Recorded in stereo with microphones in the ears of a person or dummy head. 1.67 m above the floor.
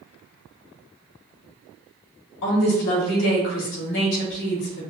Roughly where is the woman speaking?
Left.